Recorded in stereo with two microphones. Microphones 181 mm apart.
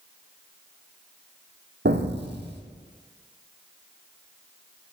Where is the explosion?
70° right (ahead or behind), 1.5 m.